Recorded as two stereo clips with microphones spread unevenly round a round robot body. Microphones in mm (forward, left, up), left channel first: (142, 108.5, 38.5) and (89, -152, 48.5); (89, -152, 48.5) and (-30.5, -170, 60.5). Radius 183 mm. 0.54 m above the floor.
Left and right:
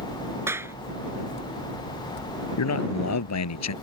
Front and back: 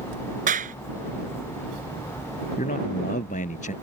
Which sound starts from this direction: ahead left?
A man speaking, at 2.6 s.